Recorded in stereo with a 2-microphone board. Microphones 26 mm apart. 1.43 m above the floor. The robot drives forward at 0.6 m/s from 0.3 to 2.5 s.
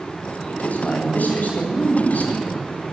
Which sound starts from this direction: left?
A man speaking, at 0.5 s.